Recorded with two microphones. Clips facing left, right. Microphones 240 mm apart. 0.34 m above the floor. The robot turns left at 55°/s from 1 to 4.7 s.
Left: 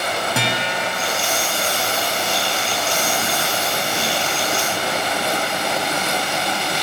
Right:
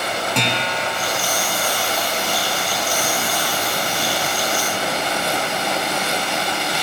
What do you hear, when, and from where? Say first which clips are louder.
0.3 s a guitar: even; 5° left (ahead or behind), 2 m; by 1.2 s 5° right (ahead or behind), 2 m